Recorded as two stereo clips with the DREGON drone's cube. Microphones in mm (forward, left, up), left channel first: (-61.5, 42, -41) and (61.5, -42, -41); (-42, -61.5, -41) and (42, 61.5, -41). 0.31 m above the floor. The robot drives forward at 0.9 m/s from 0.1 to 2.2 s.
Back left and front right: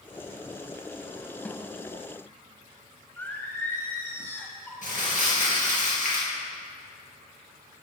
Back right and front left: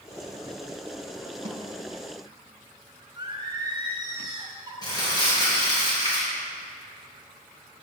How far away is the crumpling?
About 3.5 m.